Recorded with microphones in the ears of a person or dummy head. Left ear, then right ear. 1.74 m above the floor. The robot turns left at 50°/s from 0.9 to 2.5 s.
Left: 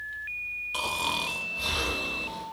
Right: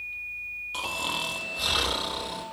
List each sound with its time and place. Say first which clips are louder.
0.7 s snoring: left 1 dB; 5° left, 0.6 m; by 2.4 s 70° right, 0.6 m